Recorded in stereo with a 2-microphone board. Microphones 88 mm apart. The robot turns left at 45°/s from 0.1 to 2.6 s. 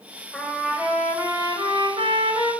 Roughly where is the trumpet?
Ahead.